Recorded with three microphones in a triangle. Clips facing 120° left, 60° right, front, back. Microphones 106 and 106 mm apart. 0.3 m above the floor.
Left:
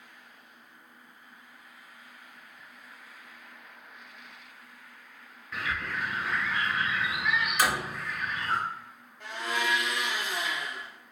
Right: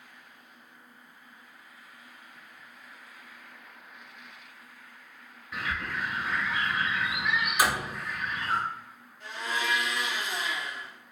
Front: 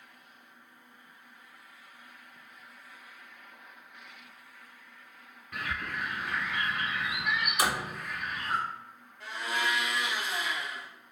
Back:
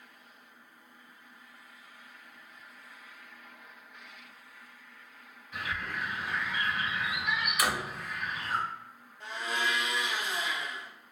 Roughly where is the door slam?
Ahead.